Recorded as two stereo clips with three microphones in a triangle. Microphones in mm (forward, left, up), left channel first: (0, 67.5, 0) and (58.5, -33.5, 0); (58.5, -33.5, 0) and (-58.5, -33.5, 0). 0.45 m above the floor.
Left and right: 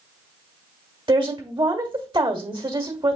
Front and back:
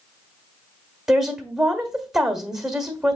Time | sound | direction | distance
1.1 | a woman speaking | 95° right | 1.3 m